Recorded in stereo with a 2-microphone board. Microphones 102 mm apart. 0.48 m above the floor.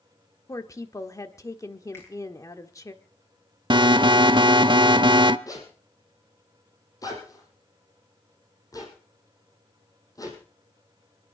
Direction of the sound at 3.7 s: 50° right (ahead or behind).